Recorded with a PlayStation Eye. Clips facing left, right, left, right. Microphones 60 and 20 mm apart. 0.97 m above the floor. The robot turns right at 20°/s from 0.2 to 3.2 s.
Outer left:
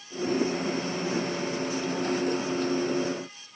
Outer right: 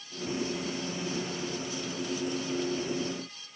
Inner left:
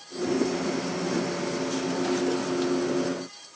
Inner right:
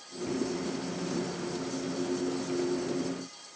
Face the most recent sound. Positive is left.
No sound to turn to.